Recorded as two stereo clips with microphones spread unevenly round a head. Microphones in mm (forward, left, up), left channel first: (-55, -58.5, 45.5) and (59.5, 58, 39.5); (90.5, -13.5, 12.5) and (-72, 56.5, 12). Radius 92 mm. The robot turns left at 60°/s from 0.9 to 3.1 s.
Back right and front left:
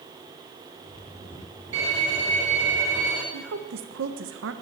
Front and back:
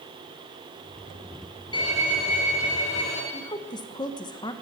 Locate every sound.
1.7 s a violin: 40° left, 3 m; by 3.2 s 40° right, 3 m
3.3 s a woman speaking: 45° left, 1.0 m